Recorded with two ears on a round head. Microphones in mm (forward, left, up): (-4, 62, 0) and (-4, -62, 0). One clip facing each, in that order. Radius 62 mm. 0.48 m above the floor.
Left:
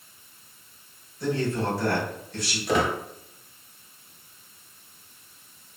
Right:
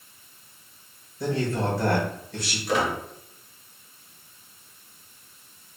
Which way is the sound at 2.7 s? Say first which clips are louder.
Left 1 dB; 75° left (ahead or behind).